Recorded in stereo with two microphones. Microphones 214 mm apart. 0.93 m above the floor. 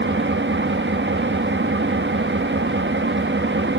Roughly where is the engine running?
Right.